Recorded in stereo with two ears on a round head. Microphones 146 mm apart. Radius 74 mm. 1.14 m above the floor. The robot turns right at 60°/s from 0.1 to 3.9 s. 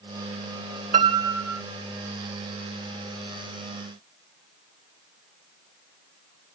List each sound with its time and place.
0.9 s a piano: 50° right, 1.4 m; by 1.6 s 10° right, 1.4 m